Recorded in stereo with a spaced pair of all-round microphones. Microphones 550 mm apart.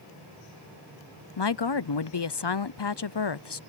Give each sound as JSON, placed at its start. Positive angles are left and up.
{"t": 1.4, "sound": "a woman speaking", "side_deg": 50}